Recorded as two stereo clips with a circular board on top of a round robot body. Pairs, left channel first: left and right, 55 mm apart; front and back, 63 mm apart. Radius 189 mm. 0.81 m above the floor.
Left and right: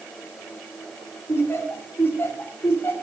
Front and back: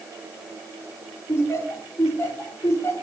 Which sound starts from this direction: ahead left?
Laughter, at 1.3 s.